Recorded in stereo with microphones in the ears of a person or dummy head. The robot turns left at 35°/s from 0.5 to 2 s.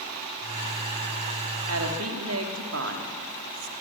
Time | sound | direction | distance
1.7 | a woman speaking | 90° right | 2.5 m